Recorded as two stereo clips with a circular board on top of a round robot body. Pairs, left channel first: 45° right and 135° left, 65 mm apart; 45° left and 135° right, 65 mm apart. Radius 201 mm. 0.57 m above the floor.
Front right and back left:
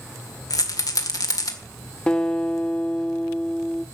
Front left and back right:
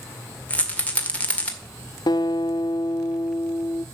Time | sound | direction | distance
0.5 | a rattle | 25° right | 2.0 m
2.1 | a guitar | 30° left | 0.5 m